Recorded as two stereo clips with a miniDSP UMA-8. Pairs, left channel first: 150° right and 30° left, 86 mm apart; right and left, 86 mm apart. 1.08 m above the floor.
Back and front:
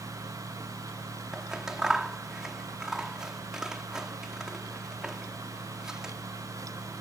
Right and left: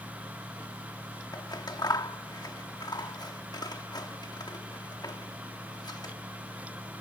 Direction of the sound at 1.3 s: 55° right.